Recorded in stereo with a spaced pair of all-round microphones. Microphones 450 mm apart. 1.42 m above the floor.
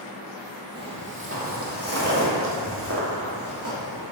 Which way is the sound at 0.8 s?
20° right (ahead or behind).